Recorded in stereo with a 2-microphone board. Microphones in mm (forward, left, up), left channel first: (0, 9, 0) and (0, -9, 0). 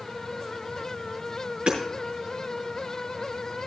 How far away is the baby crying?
I don't hear a baby crying.